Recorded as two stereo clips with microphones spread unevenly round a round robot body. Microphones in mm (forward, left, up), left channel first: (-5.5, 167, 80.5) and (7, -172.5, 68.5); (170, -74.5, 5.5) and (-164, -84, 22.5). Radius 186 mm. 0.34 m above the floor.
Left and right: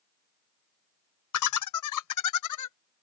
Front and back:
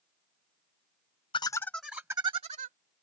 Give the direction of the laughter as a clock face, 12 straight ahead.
10 o'clock.